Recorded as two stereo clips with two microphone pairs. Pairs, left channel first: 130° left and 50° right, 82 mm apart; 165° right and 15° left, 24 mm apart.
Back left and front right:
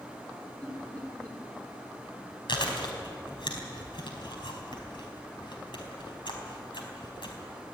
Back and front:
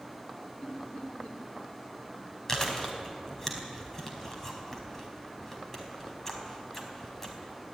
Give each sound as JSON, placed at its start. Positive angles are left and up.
{"t": 0.6, "sound": "laughter", "azimuth_deg": -155, "distance_m": 4.5}
{"t": 2.5, "sound": "chewing", "azimuth_deg": 120, "distance_m": 4.0}